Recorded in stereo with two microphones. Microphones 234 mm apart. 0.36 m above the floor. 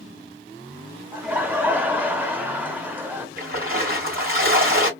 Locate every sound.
1.1 s laughter: 10° right (ahead or behind), 0.8 m
3.4 s a splash: 40° right (ahead or behind), 3.5 m